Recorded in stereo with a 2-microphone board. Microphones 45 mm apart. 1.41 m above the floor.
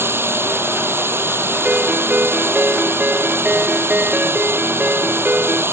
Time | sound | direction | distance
0.0 | running water | 60° right (ahead or behind) | ?
1.6 | a ringtone | 40° right (ahead or behind) | ?